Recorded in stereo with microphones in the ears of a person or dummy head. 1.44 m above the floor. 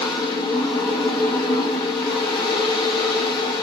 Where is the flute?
No flute in this recording.